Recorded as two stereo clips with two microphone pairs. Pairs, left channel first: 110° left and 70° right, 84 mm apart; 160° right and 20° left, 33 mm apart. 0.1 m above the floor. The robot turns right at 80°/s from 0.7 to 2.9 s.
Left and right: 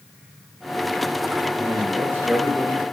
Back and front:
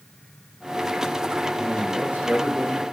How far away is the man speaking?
About 5 m.